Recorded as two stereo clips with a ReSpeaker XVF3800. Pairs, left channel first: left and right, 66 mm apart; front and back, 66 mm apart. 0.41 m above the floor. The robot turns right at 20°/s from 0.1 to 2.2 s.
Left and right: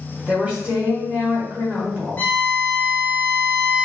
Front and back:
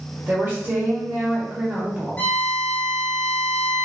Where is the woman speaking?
150° right, 1.1 m; by 2.3 s 110° right, 1.1 m.